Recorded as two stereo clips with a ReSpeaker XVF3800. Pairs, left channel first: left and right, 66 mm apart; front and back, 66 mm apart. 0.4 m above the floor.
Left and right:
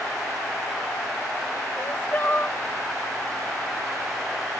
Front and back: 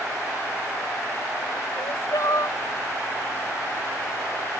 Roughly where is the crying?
Ahead left.